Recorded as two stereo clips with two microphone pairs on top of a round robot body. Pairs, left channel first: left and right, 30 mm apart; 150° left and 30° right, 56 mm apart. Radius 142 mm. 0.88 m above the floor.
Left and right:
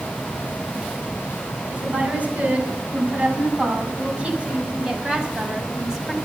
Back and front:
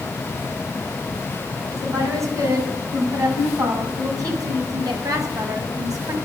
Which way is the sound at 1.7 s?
55° right.